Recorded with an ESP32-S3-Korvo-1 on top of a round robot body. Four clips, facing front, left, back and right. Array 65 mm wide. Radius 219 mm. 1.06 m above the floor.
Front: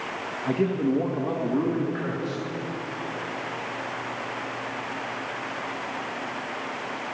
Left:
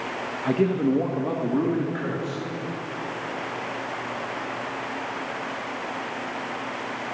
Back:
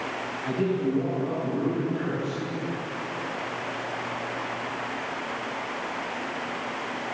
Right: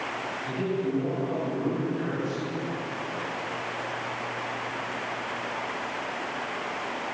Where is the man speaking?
70° left, 2.5 m; by 2.5 s 50° left, 4.5 m.